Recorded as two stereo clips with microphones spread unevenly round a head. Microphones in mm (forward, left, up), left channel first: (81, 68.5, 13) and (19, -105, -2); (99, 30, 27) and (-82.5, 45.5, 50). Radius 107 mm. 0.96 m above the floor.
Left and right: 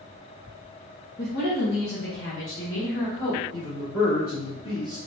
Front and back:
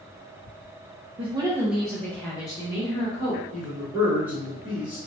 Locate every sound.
1.2 s a woman speaking: 115° left, 0.6 m; by 3.4 s 50° left, 1.5 m
3.5 s a man speaking: 90° left, 1.5 m